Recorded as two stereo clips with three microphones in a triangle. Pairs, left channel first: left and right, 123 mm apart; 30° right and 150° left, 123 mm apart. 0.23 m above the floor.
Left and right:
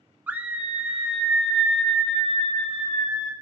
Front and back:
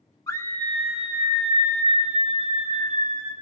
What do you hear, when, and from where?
0.3 s a scream: 30° right, 1.1 m; by 3.3 s 170° left, 2.5 m